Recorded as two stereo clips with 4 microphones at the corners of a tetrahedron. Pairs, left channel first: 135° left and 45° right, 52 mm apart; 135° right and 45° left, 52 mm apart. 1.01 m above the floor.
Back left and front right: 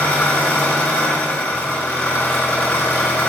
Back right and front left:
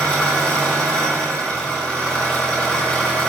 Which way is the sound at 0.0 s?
170° left.